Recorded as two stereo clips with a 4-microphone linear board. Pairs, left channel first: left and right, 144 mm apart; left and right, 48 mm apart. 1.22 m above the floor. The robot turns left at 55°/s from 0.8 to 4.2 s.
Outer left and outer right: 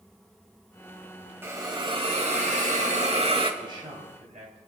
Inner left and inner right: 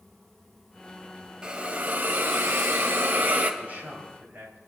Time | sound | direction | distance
1.4 | a hiss | 20° right | 1.7 m
3.6 | a man speaking | 35° right | 3.5 m